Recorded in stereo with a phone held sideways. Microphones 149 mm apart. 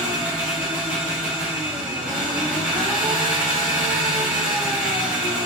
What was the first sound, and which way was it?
An engine running, 10° right (ahead or behind).